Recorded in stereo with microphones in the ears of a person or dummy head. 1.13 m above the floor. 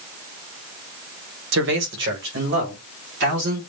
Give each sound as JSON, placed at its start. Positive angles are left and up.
{"t": 1.5, "sound": "a man speaking", "side_deg": -65, "distance_m": 0.7}